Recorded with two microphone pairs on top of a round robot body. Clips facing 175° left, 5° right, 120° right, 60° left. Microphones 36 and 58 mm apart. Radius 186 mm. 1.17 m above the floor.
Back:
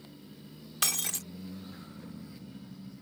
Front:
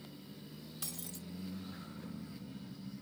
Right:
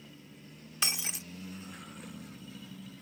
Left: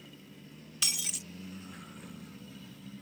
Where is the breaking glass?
175° right.